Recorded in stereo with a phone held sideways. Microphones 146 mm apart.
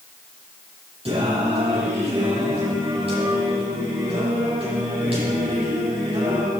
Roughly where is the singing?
Right.